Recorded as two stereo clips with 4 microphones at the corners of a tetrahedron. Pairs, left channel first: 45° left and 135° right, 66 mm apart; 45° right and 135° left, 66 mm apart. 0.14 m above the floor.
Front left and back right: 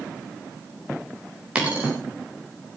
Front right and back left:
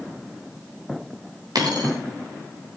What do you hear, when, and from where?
1.6 s a dropped coin: 150° left, 6.5 m